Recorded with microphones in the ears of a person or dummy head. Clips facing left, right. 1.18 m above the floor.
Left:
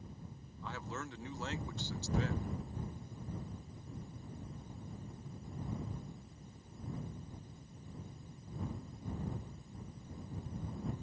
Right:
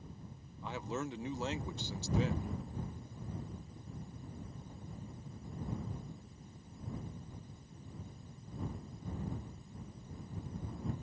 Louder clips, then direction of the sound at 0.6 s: Right 5 dB; 15° right (ahead or behind).